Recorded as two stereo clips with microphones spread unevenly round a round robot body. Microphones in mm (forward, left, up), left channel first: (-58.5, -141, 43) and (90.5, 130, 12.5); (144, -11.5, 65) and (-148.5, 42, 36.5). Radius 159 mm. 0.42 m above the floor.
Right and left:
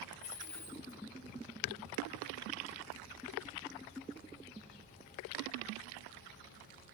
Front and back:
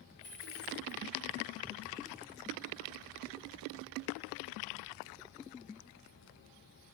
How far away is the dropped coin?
About 8 m.